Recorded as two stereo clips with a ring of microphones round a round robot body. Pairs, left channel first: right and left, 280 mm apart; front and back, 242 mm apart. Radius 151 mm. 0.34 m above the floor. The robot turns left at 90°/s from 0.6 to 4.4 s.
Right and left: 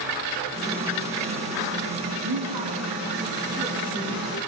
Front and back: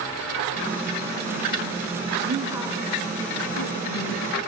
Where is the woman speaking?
130° left, 5 m; by 4.4 s 65° right, 5 m.